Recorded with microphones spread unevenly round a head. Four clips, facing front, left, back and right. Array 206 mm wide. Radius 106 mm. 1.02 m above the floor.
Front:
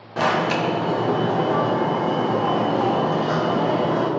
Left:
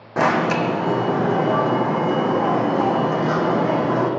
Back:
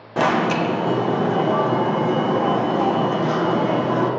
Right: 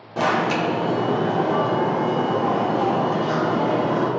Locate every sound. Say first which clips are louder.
0.2 s an alarm: left 2 dB, back 2 dB; 130° left, 1.1 m